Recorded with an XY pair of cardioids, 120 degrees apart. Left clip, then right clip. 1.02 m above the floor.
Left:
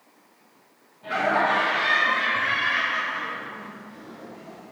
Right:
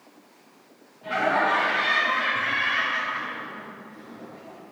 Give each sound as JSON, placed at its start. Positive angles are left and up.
{"t": 1.0, "sound": "laughter", "azimuth_deg": 5, "distance_m": 2.0}